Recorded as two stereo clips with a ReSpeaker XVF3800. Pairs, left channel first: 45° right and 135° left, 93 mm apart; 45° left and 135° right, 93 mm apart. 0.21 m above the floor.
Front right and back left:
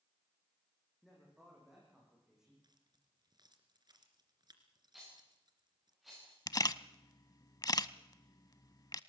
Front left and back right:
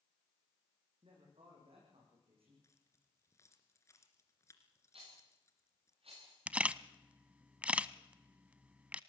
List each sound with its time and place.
1.0 s a man speaking: 135° right, 10 m; by 2.5 s 140° right, 11 m
2.6 s keys jangling: 100° left, 2.5 m
4.9 s a rattle: 135° right, 8.5 m
6.5 s a camera shutter: 65° right, 0.5 m